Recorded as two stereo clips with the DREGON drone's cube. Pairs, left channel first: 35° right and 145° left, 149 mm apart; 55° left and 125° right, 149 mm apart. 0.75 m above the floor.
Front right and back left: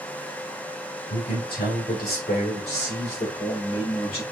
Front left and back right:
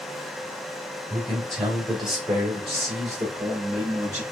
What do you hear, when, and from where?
1.1 s a man speaking: 45° right, 1.6 m; by 4.2 s 85° right, 3 m